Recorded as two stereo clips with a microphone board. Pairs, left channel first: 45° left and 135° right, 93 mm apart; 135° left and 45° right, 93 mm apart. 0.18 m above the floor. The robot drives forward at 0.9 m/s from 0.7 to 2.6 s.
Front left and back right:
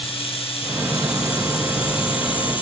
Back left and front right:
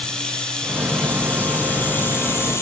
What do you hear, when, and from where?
0.0 s running water: 55° left, 5 m; by 2.6 s 75° left, 4.5 m